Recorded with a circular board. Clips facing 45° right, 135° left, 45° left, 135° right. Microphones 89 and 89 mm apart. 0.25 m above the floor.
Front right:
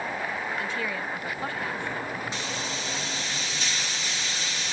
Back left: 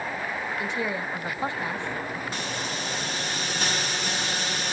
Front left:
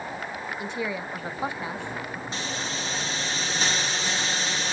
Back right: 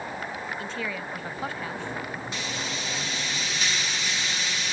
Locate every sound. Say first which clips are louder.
0.6 s a woman speaking: back left 2 dB, front left 2 dB; 95° left, 1.2 m
2.3 s a hiss: back left 1 dB, front left 1 dB; 100° left, 5 m